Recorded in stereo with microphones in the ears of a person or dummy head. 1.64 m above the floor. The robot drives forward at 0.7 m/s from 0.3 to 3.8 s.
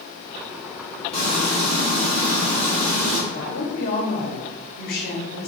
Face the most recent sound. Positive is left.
turn(degrees=50)  # may be behind; listen again after turning